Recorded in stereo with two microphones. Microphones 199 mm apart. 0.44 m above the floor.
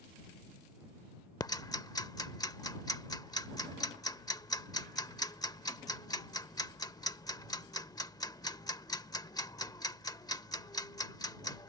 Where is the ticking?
20° left (ahead or behind).